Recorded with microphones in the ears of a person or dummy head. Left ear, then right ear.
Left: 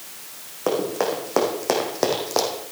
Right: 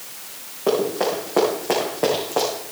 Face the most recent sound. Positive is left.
turn(degrees=70)  # may be behind; listen again after turning